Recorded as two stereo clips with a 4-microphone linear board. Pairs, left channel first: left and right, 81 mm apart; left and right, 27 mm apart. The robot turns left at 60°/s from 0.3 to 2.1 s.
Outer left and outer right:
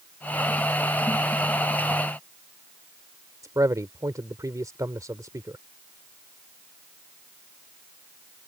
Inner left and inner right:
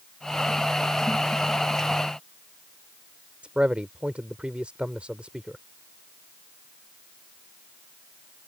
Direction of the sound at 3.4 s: 40° right (ahead or behind).